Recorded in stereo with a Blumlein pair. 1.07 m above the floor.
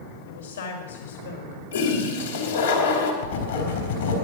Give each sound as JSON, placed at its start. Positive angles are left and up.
{"t": 0.3, "sound": "a woman speaking", "azimuth_deg": 70, "distance_m": 5.5}
{"t": 1.7, "sound": "a toilet flushing", "azimuth_deg": 70, "distance_m": 3.0}
{"t": 3.2, "sound": "writing", "azimuth_deg": 65, "distance_m": 4.5}